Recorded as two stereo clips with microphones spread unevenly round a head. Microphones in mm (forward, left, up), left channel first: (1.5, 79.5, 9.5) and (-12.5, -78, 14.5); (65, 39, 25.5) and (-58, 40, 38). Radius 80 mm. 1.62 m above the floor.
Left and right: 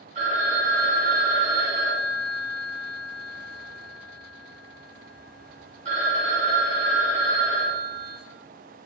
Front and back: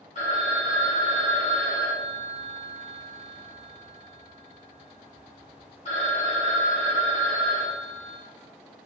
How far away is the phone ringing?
About 3 m.